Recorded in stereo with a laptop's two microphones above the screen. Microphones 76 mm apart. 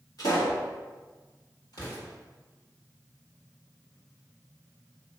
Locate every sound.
0.2 s a pop: 55° left (ahead or behind), 1.5 m
1.7 s an explosion: 65° left (ahead or behind), 1.7 m